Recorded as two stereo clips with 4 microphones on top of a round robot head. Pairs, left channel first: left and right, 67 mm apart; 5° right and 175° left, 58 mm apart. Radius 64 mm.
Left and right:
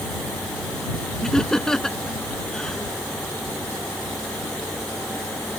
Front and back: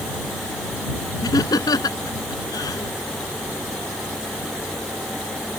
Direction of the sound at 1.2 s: 5° left.